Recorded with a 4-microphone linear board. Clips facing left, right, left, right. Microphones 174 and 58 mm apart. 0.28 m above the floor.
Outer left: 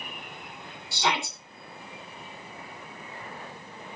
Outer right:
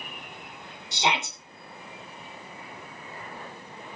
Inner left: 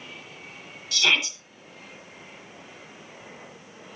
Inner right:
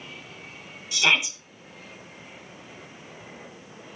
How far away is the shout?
About 1.4 m.